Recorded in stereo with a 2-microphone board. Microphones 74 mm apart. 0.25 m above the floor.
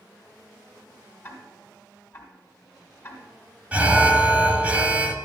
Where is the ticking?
30° left (ahead or behind), 2 m.